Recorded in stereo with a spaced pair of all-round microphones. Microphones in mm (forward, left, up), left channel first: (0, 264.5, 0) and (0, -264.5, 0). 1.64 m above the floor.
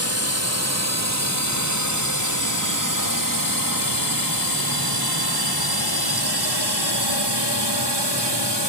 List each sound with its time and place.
0.0 s a drone: 30° right (ahead or behind); by 8.7 s 60° right (ahead or behind)